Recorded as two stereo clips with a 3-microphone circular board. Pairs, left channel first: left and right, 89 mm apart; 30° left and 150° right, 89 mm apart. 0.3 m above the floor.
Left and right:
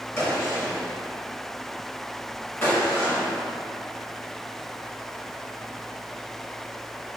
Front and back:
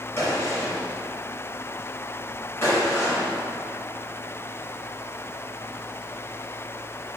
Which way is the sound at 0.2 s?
50° left.